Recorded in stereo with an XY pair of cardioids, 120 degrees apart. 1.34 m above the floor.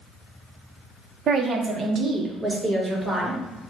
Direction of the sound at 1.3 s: 50° right.